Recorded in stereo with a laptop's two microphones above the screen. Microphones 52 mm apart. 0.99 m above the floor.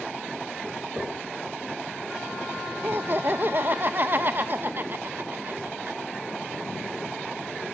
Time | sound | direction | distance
1.0 | knocking | 25° right (ahead or behind) | 3 m
2.8 | laughter | 45° right (ahead or behind) | 0.6 m